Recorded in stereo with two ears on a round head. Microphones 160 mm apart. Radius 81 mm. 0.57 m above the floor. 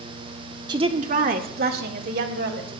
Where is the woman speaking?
25° right (ahead or behind), 0.9 m; by 2.7 s 70° right (ahead or behind), 3 m.